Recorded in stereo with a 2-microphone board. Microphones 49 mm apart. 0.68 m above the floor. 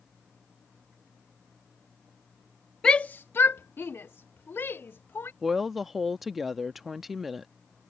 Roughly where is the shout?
Centre.